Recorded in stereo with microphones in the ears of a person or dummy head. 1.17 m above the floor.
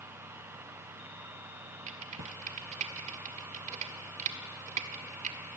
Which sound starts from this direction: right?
Typing on a keyboard, at 1.9 s.